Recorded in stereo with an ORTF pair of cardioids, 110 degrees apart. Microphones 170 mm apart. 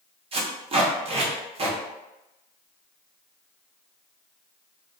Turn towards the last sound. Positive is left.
turn(degrees=-35)